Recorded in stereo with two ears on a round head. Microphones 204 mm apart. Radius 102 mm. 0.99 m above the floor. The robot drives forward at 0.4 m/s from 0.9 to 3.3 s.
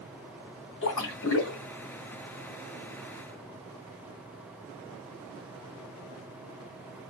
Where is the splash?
55° left (ahead or behind), 2.5 m; by 1.6 s 60° left (ahead or behind), 2.5 m.